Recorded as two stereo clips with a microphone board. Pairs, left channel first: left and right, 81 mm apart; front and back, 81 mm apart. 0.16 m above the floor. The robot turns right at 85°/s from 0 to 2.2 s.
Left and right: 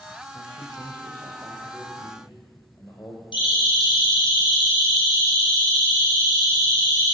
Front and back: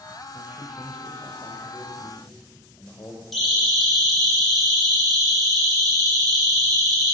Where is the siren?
90° left, 5 m.